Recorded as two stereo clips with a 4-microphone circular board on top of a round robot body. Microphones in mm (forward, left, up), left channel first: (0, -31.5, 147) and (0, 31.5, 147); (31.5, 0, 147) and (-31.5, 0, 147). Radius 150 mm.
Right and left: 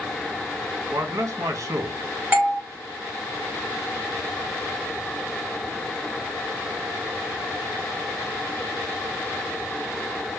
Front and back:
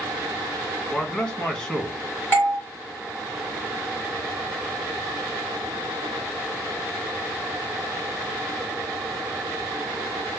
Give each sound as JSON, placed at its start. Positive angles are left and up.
{"t": 0.9, "sound": "a man speaking", "azimuth_deg": 70, "distance_m": 1.2}
{"t": 2.3, "sound": "a doorbell", "azimuth_deg": 45, "distance_m": 1.9}